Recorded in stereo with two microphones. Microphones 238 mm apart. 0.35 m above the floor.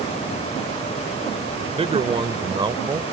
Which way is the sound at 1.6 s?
25° right (ahead or behind).